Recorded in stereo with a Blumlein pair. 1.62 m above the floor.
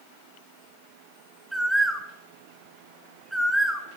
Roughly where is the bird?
Ahead.